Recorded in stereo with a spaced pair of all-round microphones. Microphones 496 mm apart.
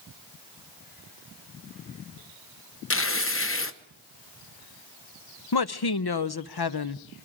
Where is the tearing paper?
25° left (ahead or behind), 0.9 m.